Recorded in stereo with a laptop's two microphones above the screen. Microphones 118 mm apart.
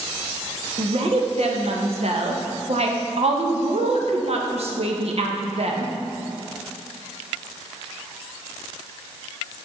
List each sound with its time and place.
0.8 s a woman speaking: 60° right (ahead or behind), 0.8 m